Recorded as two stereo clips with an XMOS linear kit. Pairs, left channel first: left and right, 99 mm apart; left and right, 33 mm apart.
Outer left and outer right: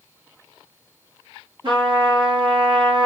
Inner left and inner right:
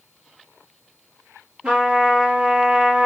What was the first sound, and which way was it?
A trumpet, 45° right (ahead or behind).